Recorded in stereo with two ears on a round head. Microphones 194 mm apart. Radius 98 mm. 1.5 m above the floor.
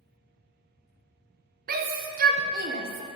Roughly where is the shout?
Right.